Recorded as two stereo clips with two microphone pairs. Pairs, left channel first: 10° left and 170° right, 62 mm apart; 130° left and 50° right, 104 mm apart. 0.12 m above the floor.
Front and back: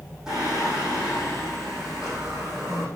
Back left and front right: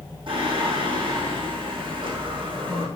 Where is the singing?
90° right, 5 m.